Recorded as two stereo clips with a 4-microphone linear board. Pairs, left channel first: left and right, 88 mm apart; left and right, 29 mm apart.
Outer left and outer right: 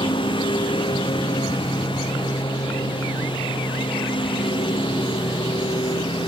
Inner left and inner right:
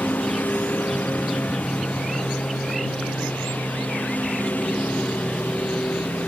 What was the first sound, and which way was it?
A lawn mower, 65° left (ahead or behind).